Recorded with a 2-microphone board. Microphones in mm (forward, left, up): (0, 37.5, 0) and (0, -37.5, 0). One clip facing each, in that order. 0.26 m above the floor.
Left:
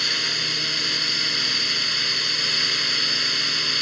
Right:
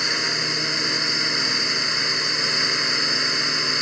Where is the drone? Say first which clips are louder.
Right 3 dB; 25° right (ahead or behind).